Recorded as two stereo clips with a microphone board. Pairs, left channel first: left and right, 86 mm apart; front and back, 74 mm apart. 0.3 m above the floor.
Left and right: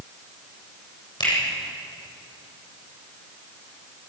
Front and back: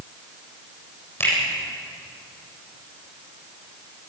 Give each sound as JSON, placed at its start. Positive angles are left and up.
{"t": 1.2, "sound": "a finger snap", "azimuth_deg": 60, "distance_m": 8.5}